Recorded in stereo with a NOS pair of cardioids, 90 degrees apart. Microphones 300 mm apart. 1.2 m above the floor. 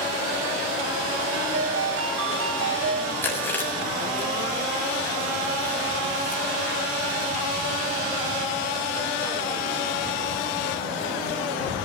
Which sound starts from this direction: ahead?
Chewing, at 3.2 s.